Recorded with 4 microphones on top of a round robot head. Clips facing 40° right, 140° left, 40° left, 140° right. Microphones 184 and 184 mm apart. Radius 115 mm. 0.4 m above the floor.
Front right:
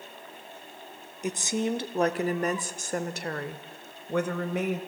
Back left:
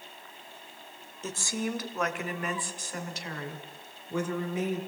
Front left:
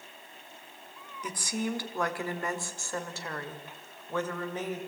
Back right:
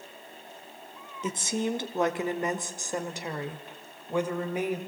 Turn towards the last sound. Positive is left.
turn(degrees=-65)